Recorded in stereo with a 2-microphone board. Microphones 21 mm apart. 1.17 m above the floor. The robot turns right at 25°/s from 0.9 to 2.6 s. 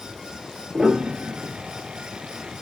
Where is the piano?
55° right (ahead or behind), 1.5 m; by 1.6 s 65° right (ahead or behind), 1.5 m.